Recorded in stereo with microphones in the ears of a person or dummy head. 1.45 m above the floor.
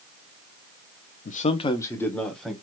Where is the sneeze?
I don't hear a sneeze.